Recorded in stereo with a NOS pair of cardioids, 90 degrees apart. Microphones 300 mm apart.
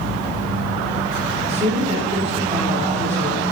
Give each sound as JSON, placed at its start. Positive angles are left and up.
{"t": 1.5, "sound": "a woman speaking", "azimuth_deg": -20, "distance_m": 2.5}